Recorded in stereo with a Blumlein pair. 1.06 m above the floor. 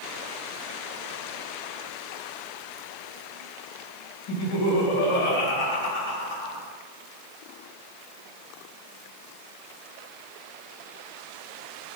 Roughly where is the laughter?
Ahead left.